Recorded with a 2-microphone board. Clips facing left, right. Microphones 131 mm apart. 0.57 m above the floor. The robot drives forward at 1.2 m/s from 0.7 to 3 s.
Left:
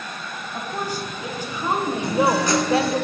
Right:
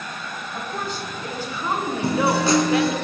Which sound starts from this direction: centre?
A woman speaking, at 0.5 s.